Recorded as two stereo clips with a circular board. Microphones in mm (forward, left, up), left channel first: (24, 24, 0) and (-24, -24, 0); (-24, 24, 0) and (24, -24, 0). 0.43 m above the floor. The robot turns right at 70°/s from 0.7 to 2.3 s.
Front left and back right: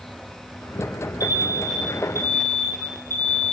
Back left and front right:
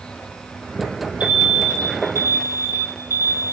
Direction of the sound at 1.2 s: 25° left.